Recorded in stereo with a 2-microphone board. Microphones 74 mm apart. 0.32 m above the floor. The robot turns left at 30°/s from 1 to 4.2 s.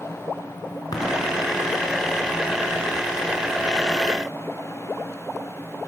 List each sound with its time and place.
0.9 s tapping: 60° left (ahead or behind), 3.5 m; by 1.0 s 65° left (ahead or behind), 3.5 m